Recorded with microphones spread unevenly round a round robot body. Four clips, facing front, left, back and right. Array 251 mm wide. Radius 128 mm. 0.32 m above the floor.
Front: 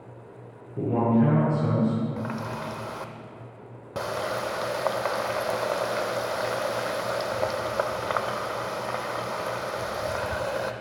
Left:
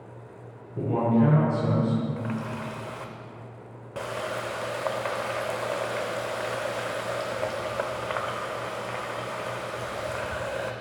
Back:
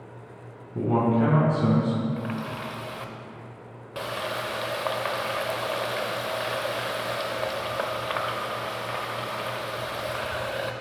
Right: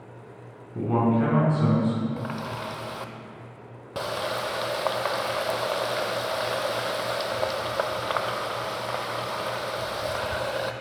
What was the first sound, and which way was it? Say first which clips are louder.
A man speaking: even, even; 145° right.